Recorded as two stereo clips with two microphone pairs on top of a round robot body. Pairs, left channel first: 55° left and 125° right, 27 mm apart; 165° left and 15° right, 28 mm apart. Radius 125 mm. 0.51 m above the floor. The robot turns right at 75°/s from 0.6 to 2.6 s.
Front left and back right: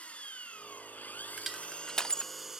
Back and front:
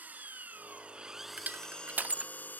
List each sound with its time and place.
0.0 s an engine running: 10° left; by 2.6 s 160° left
1.4 s crushing: 50° right; by 2.3 s 20° left